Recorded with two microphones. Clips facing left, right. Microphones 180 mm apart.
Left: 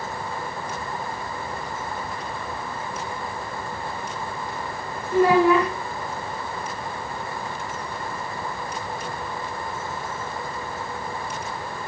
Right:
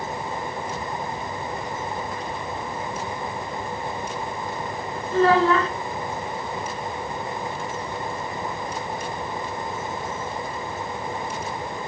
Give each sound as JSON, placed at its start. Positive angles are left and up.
{"t": 5.1, "sound": "a child speaking", "side_deg": 15, "distance_m": 1.3}